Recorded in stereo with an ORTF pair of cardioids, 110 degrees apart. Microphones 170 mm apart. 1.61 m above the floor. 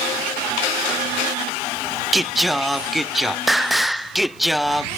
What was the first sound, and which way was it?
Singing, straight ahead.